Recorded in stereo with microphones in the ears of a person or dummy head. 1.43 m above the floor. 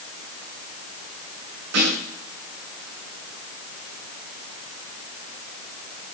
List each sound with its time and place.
1.7 s a snare drum: 75° right (ahead or behind), 9 m